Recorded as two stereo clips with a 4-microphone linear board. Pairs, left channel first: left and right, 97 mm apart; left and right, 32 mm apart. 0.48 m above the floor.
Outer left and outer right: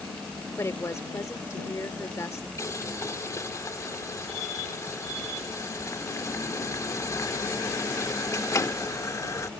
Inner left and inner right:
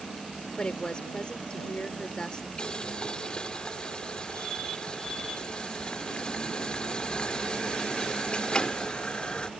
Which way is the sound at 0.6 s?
30° left (ahead or behind).